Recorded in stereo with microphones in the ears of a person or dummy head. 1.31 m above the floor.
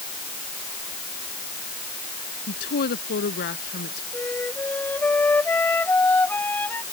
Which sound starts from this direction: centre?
A flute, at 4.1 s.